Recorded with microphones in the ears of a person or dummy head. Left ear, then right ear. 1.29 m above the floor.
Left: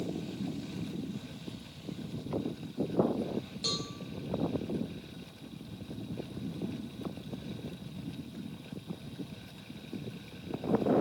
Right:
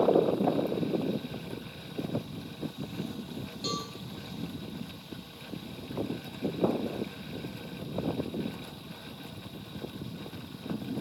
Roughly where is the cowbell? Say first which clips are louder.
Even; centre.